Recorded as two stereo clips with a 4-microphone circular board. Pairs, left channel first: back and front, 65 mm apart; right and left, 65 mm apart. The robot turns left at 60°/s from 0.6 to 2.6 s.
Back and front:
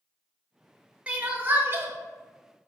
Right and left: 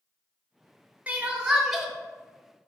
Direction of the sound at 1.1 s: 50° left.